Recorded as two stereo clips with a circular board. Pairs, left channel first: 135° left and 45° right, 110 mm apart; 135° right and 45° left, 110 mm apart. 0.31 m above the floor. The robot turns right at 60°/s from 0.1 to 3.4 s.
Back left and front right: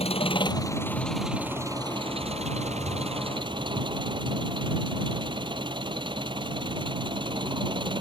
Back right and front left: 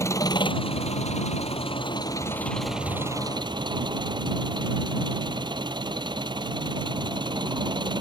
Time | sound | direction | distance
0.0 | an engine running | 160° left | ?